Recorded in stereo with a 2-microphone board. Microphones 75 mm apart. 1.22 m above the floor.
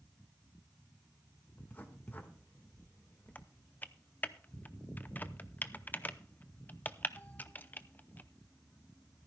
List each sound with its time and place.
1.6 s writing: 25° left (ahead or behind), 1.5 m
3.4 s typing on a keyboard: 25° left (ahead or behind), 0.5 m